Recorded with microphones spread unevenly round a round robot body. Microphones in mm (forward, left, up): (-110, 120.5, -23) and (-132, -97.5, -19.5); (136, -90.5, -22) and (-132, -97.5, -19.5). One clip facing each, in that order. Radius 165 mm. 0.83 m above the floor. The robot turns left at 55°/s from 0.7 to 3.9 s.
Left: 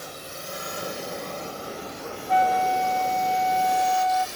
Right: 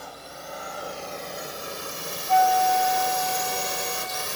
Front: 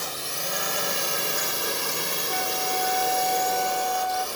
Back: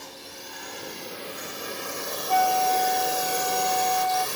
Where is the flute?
160° left; by 4.3 s 75° left.